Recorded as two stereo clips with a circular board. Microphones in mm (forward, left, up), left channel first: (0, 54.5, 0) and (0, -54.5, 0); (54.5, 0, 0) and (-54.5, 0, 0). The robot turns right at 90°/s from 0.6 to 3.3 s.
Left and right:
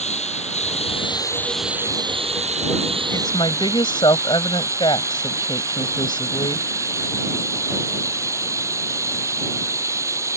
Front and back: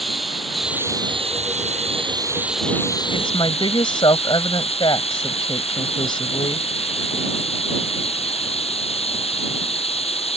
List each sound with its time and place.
0.0 s running water: 90° left; by 10.4 s 25° right
3.1 s a woman speaking: 30° left; by 6.7 s 45° left